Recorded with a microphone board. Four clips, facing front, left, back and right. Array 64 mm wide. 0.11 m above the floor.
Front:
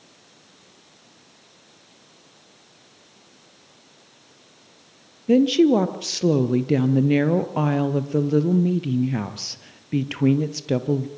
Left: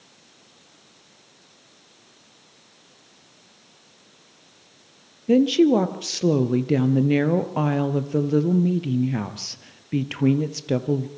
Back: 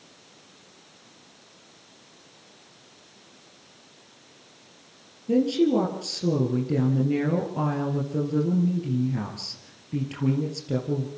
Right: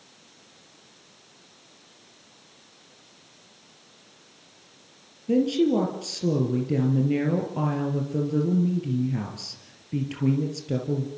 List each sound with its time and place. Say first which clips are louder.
5.3 s a woman speaking: left 5 dB, front 5 dB; 45° left, 2.5 m